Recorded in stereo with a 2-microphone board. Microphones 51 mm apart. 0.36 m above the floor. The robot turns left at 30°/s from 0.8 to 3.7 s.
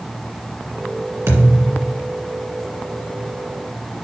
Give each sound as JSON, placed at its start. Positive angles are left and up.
{"t": 1.3, "sound": "a thud", "side_deg": -75, "distance_m": 2.0}